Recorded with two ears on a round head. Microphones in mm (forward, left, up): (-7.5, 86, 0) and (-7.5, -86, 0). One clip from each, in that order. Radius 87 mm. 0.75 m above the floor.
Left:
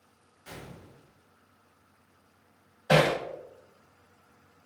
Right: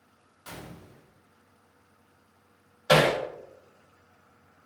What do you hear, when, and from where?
0.5 s a gunshot: 30° right (ahead or behind), 1.6 m
2.9 s hammering: 45° right (ahead or behind), 2.0 m